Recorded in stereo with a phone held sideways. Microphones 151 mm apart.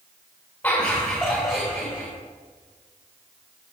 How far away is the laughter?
About 6 m.